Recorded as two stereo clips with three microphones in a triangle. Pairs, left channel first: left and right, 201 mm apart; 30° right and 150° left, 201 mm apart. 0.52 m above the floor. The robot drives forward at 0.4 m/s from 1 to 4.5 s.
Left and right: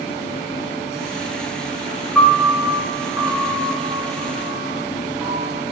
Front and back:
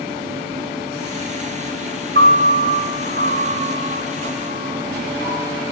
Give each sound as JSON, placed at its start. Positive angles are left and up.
{"t": 2.1, "sound": "a piano", "azimuth_deg": 180, "distance_m": 3.5}